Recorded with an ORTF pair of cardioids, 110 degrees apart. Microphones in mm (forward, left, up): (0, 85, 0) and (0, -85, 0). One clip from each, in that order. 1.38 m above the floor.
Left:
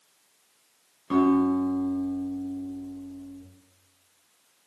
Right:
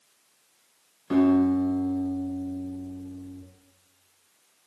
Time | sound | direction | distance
1.1 | a guitar | 5° right | 0.8 m